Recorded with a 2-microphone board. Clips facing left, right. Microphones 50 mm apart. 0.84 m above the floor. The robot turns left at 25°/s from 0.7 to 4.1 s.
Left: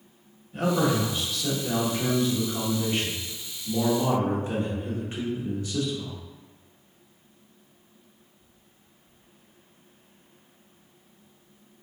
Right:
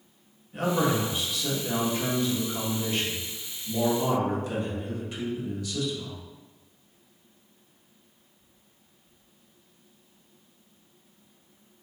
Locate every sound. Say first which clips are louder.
0.5 s a man speaking: left 1 dB; 155° right, 1.2 m; by 6.2 s 120° left, 1.2 m